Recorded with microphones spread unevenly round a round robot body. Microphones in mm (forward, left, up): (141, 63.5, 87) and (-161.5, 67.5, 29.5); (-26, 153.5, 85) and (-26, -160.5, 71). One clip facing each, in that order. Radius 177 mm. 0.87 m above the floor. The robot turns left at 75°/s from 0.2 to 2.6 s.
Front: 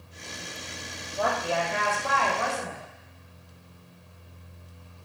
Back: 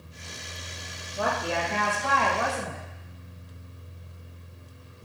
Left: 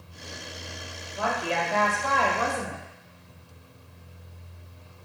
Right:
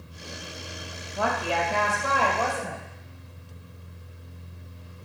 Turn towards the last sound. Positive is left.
turn(degrees=155)